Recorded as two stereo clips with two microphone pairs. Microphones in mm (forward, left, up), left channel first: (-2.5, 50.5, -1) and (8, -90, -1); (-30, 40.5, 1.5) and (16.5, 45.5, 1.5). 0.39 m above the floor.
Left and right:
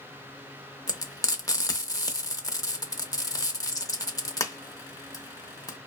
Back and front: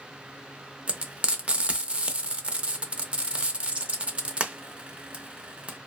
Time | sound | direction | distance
0.9 | frying | 45° left | 0.6 m